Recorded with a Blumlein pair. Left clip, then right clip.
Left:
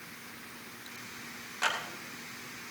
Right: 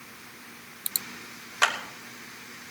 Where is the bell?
No bell in this recording.